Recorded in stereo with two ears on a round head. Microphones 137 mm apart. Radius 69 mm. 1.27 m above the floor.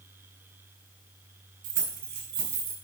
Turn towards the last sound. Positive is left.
turn(degrees=-85)